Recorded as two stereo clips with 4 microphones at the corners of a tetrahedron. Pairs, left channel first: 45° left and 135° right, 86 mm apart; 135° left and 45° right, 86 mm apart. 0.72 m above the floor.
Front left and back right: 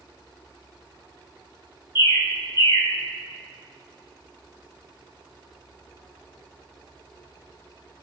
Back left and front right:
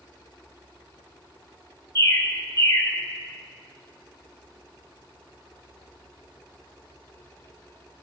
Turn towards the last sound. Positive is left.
turn(degrees=80)